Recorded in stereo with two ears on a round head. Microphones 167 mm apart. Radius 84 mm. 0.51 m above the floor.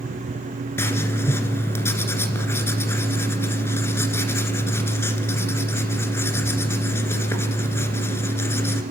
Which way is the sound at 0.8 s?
15° left (ahead or behind).